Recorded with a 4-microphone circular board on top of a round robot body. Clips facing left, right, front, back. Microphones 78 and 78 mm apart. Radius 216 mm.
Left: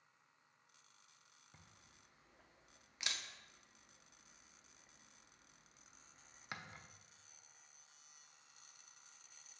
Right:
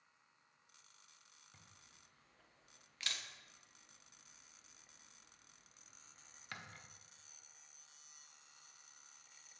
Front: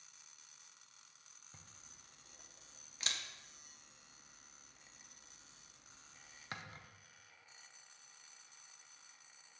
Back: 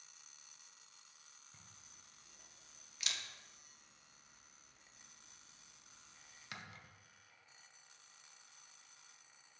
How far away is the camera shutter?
About 0.7 m.